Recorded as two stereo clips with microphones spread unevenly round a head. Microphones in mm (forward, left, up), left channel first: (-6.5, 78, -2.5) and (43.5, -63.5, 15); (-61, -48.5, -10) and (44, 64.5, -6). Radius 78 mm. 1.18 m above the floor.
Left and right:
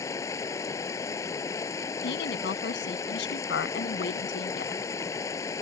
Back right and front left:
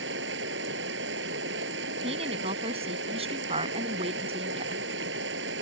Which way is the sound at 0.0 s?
40° left.